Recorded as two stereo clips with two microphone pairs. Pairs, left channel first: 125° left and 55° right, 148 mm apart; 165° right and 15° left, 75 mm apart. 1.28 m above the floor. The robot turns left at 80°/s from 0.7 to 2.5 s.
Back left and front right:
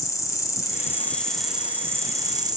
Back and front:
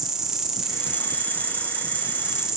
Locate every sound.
0.0 s an insect: 90° left, 0.9 m; by 2.6 s 50° right, 0.9 m